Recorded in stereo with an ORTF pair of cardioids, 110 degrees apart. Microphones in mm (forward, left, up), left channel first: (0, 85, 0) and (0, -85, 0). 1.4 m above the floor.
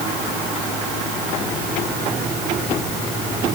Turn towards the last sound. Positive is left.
No sound to turn to.